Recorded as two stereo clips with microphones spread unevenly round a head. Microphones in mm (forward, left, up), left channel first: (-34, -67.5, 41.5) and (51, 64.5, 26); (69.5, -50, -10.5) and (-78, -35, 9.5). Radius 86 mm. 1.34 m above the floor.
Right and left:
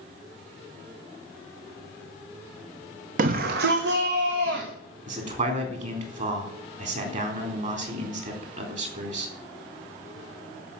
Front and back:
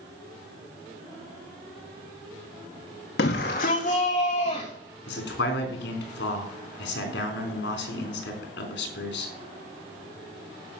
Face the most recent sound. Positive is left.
turn(degrees=10)